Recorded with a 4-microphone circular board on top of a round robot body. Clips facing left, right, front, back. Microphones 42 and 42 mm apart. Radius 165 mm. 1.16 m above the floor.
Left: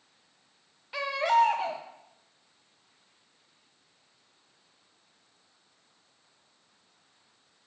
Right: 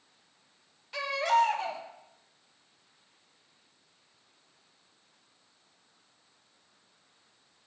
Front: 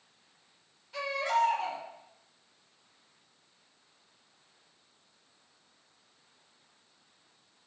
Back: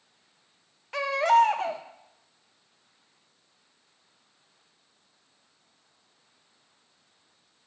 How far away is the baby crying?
About 0.5 m.